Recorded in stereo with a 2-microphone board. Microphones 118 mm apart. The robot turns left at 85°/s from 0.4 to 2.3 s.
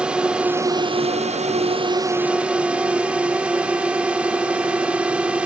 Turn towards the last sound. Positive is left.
turn(degrees=-170)